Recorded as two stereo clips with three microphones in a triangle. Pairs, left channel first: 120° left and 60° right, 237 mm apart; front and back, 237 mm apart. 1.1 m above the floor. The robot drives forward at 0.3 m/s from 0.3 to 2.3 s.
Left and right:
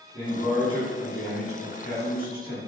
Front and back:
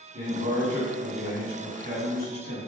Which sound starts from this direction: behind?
A man speaking, at 0.1 s.